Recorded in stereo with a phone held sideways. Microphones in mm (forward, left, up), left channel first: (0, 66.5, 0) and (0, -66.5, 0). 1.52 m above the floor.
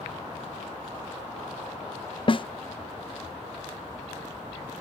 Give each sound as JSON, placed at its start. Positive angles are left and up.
{"t": 2.3, "sound": "a snare drum", "side_deg": 40, "distance_m": 0.6}